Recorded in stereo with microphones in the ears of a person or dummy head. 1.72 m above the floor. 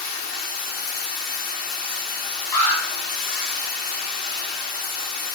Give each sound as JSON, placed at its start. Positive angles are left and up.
{"t": 0.0, "sound": "running water", "side_deg": 50, "distance_m": 1.3}
{"t": 2.5, "sound": "an alarm", "side_deg": 25, "distance_m": 5.0}